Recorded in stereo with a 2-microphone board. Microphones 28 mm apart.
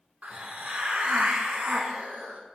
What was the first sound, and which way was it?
A hiss, 75° right (ahead or behind).